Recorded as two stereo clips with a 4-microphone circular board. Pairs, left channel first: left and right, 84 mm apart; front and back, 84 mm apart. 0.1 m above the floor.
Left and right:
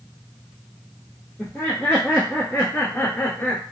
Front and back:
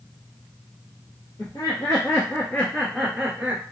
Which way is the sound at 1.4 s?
25° left.